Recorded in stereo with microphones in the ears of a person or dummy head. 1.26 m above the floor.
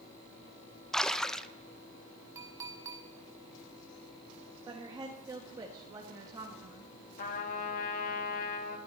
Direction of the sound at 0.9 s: 5° left (ahead or behind).